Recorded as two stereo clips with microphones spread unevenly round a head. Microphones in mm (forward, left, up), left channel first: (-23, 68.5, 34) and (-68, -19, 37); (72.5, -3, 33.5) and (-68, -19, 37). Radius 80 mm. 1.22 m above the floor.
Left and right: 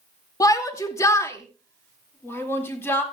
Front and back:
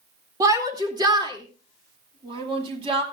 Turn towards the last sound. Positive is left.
turn(degrees=130)